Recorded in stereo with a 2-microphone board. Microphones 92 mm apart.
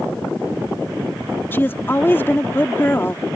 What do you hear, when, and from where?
1.5 s a woman speaking: 25° left (ahead or behind)